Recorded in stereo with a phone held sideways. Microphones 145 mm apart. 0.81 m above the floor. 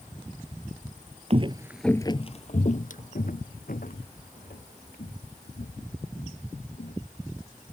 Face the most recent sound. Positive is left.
turn(degrees=80)